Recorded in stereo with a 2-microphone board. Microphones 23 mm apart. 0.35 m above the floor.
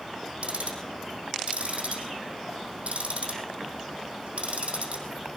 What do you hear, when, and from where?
0.4 s ticking: 70° right (ahead or behind), 4 m